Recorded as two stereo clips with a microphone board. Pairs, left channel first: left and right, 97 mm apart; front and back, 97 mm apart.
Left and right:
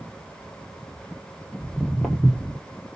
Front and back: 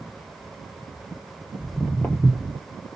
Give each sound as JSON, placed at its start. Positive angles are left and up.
{"t": 1.6, "sound": "footsteps", "azimuth_deg": 5, "distance_m": 1.1}